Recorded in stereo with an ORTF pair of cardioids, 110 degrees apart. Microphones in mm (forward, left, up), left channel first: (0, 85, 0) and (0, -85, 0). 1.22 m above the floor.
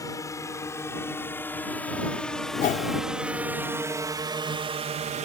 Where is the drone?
20° left; by 5.3 s 60° right.